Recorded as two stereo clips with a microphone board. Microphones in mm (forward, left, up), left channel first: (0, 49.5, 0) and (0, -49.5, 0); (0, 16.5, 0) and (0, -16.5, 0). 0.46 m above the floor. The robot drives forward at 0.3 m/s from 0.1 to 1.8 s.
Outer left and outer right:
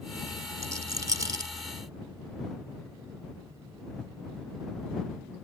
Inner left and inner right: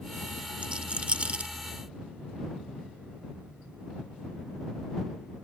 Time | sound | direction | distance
0.6 | a rattle | 30° right (ahead or behind) | ?